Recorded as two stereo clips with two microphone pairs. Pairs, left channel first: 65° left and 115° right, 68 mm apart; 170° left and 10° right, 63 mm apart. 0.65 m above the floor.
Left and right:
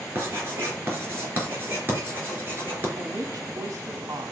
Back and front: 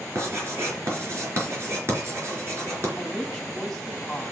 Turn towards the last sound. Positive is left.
turn(degrees=-100)